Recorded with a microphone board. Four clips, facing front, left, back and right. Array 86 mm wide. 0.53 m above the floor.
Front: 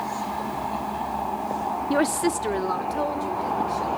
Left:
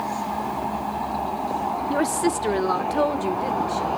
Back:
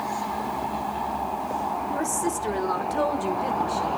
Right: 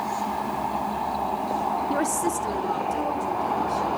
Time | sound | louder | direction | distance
1.9 | a woman speaking | left 2 dB, front 4 dB | 5° left | 0.9 m